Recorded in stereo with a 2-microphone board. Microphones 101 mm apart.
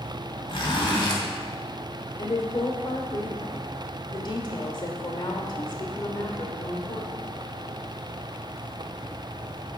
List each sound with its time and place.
0.5 s a zipper: 50° left (ahead or behind), 1.8 m
2.2 s a woman speaking: 45° left (ahead or behind), 1.2 m